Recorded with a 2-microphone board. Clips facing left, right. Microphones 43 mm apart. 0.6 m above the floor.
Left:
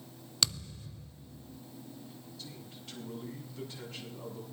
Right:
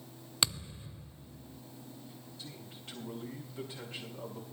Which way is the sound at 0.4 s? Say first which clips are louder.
Even; 20° right (ahead or behind).